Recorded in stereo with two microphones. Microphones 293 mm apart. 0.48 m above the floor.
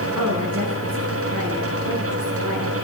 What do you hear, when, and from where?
0.1 s a woman speaking: 70° right (ahead or behind), 5 m; by 2.8 s 55° right (ahead or behind), 8 m